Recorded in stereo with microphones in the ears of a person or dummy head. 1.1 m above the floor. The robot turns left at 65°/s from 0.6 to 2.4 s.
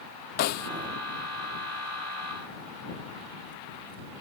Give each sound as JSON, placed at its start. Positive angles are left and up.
{"t": 0.4, "sound": "a snare drum", "side_deg": 60}